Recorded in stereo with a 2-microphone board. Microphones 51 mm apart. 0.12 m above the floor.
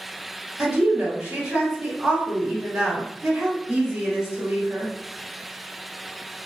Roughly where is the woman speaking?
Centre.